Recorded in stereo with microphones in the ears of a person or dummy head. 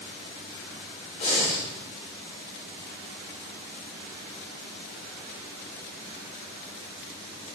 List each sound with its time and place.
1.2 s breathing: 45° left (ahead or behind), 4 m